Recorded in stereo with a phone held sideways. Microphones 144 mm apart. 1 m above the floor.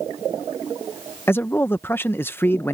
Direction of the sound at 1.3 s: 15° left (ahead or behind).